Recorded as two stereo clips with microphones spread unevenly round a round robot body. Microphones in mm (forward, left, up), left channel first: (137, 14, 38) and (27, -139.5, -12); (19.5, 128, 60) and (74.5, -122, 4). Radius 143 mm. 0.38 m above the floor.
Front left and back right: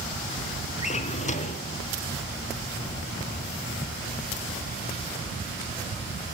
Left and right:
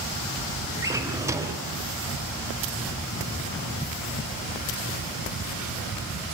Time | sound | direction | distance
0.8 | a drawer | straight ahead | 3 m